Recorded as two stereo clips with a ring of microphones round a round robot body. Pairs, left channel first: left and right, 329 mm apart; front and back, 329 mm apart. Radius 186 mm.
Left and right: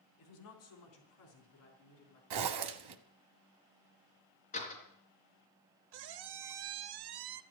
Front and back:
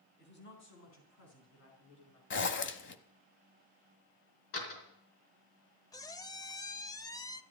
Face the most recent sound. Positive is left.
turn(degrees=-80)